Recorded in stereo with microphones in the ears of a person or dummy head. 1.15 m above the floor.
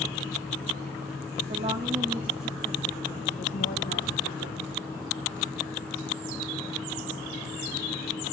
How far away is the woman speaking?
About 3 m.